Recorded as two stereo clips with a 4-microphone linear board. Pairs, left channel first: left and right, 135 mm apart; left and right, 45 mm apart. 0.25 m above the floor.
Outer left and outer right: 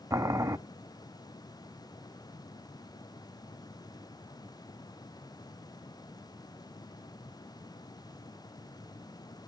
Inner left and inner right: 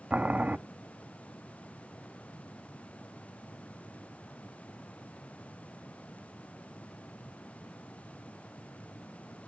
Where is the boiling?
20° right (ahead or behind), 0.5 m.